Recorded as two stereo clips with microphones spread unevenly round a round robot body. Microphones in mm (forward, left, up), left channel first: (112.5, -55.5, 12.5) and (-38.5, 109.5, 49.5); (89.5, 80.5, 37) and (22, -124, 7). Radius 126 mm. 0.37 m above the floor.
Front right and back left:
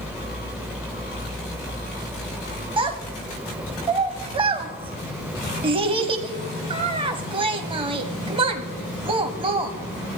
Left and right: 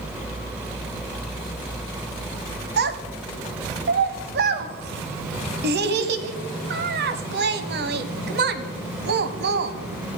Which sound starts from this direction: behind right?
A child speaking, at 2.8 s.